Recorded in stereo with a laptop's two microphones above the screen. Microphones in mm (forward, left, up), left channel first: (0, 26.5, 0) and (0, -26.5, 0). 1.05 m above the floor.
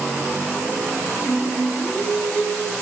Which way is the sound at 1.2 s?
25° right (ahead or behind).